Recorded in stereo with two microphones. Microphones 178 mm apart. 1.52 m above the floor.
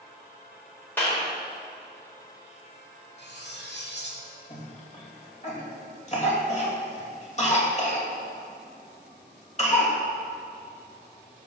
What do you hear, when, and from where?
1.0 s a clap: 10° left (ahead or behind), 5 m
3.2 s cutlery clinking: 75° left (ahead or behind), 2 m
4.5 s a cough: 40° left (ahead or behind), 3 m